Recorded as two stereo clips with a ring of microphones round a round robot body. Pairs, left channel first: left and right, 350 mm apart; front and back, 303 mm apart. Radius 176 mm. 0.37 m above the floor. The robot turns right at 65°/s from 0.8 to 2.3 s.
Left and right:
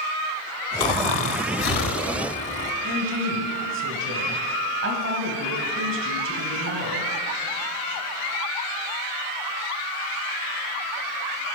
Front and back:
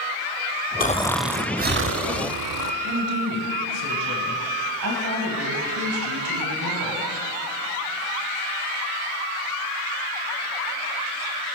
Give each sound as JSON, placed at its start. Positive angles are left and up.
{"t": 0.8, "sound": "snoring", "azimuth_deg": 65, "distance_m": 0.6}
{"t": 2.8, "sound": "a woman speaking", "azimuth_deg": -140, "distance_m": 2.5}